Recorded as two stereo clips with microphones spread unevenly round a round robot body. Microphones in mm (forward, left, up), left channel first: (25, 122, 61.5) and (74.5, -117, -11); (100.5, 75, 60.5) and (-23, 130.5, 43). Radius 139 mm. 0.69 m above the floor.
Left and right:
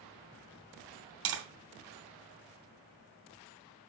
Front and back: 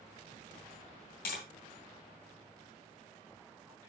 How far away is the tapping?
About 2 m.